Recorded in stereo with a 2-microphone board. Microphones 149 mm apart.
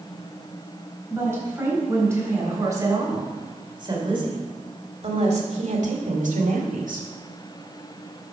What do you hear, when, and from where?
1.1 s a woman speaking: 15° right (ahead or behind), 4 m; by 7.1 s 75° right (ahead or behind), 1.8 m